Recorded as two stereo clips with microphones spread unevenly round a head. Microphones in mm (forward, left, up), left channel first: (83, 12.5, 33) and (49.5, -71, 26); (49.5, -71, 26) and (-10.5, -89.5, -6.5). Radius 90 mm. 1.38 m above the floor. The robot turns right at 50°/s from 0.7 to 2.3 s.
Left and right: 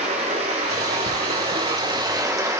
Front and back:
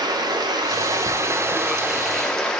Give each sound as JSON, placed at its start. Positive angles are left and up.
{"t": 0.0, "sound": "running water", "azimuth_deg": -135, "distance_m": 1.8}